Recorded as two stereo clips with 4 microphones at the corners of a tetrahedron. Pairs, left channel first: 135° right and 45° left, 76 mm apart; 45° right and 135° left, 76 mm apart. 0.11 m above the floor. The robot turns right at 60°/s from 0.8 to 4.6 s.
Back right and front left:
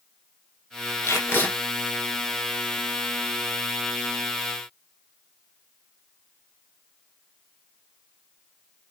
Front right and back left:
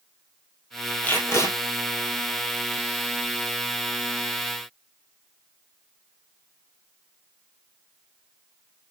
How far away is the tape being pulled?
About 1.6 m.